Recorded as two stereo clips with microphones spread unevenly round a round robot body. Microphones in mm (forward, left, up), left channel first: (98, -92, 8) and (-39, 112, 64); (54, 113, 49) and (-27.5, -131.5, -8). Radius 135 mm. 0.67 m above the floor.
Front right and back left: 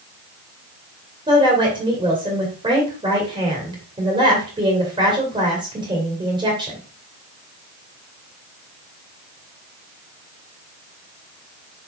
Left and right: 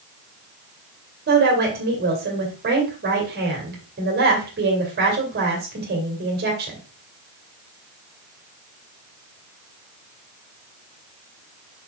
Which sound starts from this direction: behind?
A woman speaking, at 1.3 s.